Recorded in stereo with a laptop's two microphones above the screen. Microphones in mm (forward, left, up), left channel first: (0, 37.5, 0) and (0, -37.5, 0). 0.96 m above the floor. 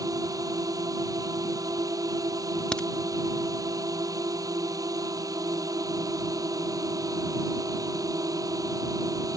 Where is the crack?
15° left (ahead or behind).